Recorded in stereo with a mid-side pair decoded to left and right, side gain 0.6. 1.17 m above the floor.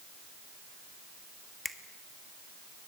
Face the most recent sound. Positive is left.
turn(degrees=0)